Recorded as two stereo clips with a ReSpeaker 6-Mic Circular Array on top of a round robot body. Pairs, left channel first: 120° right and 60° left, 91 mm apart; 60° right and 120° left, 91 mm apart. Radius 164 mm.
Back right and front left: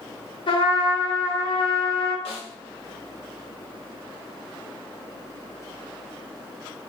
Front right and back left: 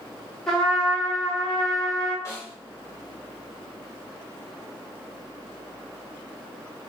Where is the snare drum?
120° right, 0.6 m.